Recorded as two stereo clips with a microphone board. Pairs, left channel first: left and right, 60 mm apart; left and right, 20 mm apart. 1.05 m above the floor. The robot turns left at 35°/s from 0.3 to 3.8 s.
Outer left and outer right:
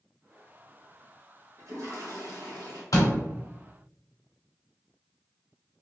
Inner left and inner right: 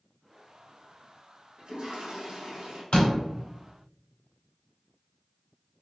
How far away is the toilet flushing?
About 1.0 m.